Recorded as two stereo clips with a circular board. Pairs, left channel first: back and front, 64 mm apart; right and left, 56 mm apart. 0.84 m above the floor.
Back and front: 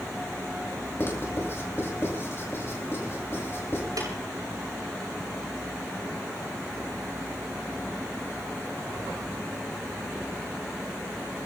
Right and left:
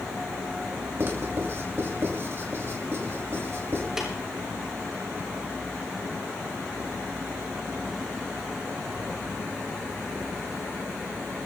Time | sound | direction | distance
1.0 | writing | 130° left | 4.5 m
4.0 | tapping | 10° left | 9.5 m